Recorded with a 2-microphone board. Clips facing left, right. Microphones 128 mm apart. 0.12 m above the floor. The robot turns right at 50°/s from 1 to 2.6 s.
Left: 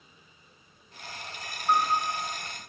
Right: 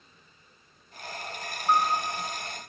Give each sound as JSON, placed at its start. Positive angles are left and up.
{"t": 1.7, "sound": "a piano", "side_deg": -20, "distance_m": 1.8}